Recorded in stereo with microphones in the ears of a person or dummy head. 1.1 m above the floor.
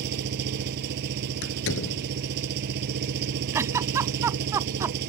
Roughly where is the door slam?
Left.